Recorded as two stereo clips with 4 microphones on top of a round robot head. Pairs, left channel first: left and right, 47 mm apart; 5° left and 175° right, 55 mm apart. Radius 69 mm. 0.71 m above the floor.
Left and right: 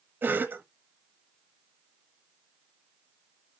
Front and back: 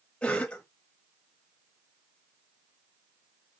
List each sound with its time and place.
0.2 s a cough: 65° right, 0.8 m